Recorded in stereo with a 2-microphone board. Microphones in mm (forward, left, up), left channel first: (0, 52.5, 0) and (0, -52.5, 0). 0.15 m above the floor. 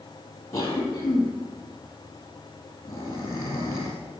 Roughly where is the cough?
Left.